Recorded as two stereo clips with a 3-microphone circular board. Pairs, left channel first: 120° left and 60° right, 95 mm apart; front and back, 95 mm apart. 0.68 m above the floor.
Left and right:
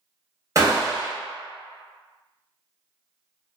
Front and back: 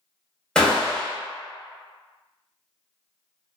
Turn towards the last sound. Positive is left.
turn(degrees=-75)